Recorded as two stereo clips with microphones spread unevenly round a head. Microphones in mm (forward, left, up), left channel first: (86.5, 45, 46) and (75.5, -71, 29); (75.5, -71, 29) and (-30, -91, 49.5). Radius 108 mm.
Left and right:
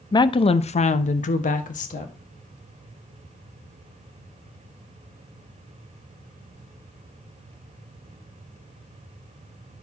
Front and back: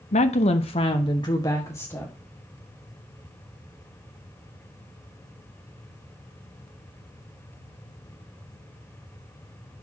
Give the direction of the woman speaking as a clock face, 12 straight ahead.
11 o'clock.